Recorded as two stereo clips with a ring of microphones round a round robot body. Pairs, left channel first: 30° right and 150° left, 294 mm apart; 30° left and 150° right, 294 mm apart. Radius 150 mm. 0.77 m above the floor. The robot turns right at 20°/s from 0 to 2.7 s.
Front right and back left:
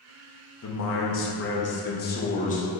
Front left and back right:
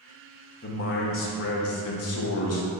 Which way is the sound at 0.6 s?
10° right.